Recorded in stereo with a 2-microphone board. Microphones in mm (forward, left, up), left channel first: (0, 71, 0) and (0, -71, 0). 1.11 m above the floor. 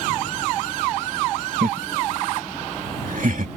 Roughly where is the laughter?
Right.